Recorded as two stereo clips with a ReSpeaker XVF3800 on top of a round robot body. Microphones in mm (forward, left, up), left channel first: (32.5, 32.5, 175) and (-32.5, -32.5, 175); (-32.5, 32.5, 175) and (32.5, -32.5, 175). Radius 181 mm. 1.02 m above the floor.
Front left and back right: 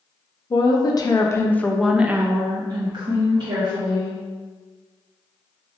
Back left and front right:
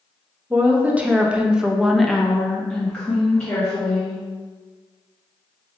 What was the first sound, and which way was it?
A woman speaking, 25° left.